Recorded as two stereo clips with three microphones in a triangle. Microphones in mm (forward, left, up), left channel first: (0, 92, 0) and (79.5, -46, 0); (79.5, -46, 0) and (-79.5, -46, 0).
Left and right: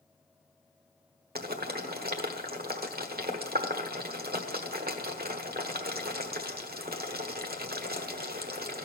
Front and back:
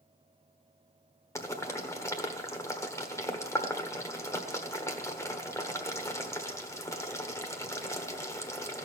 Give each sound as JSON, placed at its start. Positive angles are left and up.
{"t": 1.4, "sound": "boiling", "azimuth_deg": -70, "distance_m": 1.3}